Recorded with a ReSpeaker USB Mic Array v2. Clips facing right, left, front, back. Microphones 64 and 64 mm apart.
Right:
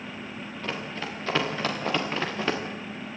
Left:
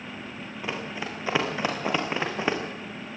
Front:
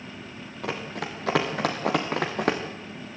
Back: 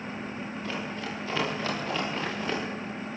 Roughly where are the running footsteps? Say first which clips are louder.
Left 1 dB, front 5 dB; ahead.